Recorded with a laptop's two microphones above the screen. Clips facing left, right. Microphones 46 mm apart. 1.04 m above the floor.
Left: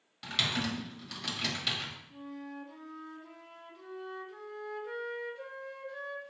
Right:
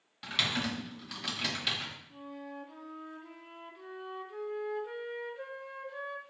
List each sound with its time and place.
0.2 s typing on a keyboard: 10° right (ahead or behind), 1.2 m
2.1 s a flute: 15° right (ahead or behind), 0.5 m